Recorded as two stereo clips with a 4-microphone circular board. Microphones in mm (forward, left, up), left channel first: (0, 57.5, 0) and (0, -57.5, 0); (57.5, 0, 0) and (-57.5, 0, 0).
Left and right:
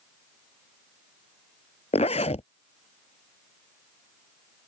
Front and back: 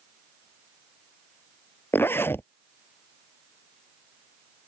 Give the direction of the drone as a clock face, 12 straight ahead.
No drone in this recording.